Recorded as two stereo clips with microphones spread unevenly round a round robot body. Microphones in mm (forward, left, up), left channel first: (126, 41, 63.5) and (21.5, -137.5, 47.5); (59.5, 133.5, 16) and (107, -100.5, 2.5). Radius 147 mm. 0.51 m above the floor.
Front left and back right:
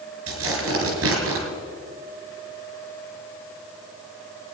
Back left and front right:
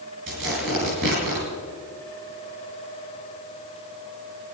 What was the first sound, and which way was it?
Tearing paper, 130° right.